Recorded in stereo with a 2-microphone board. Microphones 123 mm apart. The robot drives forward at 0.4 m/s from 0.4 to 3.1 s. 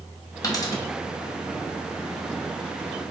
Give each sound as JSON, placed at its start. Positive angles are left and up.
{"t": 0.4, "sound": "a dropped coin", "side_deg": 30, "distance_m": 1.1}